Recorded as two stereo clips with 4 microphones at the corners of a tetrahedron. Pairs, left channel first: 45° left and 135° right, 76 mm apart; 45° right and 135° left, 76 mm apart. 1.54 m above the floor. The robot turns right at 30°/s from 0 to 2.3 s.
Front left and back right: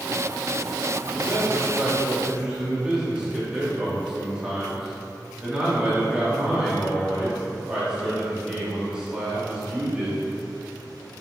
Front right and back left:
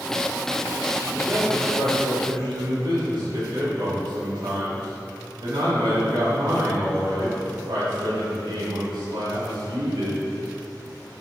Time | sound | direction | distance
1.1 | a man speaking | 110° left | 3.5 m